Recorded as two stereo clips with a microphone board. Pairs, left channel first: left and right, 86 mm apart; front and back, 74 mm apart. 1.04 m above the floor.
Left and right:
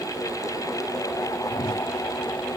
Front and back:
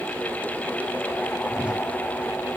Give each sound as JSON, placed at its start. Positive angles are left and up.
{"t": 1.5, "sound": "a whoosh", "azimuth_deg": 100}